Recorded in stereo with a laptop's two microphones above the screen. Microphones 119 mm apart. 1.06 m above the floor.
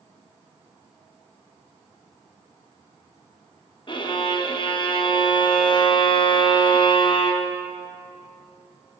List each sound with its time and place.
3.9 s a violin: 40° left (ahead or behind), 0.7 m